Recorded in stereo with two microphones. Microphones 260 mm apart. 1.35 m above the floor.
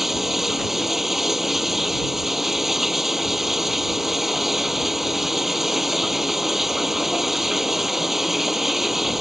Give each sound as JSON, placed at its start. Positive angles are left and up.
{"t": 0.0, "sound": "running water", "side_deg": 0}